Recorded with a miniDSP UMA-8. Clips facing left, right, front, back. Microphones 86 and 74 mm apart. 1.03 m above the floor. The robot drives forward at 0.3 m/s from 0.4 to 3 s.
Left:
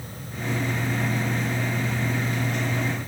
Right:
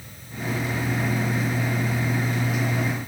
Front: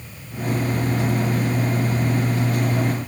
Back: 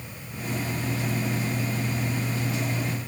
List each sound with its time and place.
Only background noise.